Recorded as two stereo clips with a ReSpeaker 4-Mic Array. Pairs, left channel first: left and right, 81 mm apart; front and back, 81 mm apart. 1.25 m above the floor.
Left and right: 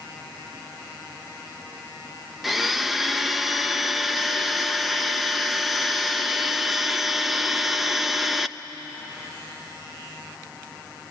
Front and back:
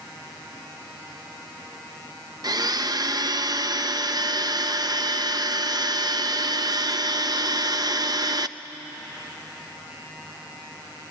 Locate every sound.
2.4 s a blender: straight behind, 0.6 m